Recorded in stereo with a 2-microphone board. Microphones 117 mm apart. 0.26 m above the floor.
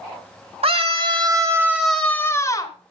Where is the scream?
55° right (ahead or behind), 1.8 m; by 2.8 s 35° left (ahead or behind), 1.7 m.